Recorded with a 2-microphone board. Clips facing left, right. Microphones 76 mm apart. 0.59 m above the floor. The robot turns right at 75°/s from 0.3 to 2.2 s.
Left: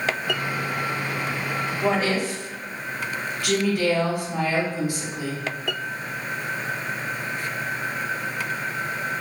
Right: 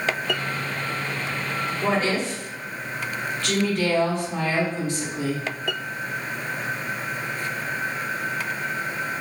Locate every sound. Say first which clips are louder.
1.8 s a woman speaking: left 1 dB; 5° right (ahead or behind), 1.1 m; by 5.4 s 10° left (ahead or behind), 1.1 m